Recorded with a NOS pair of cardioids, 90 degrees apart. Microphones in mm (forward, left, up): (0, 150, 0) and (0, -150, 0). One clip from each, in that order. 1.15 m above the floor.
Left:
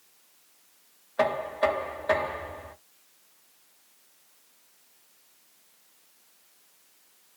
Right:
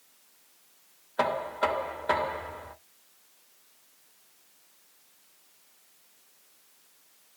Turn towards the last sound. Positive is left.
turn(degrees=-10)